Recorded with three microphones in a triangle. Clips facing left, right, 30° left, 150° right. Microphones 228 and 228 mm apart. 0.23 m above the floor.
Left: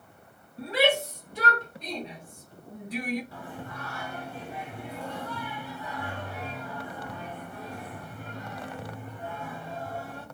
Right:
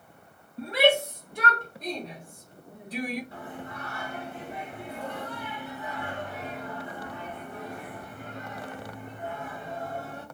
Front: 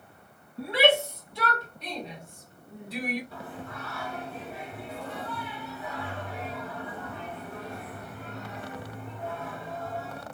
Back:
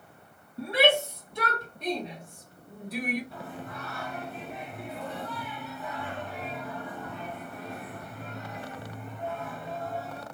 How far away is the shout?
About 1.8 m.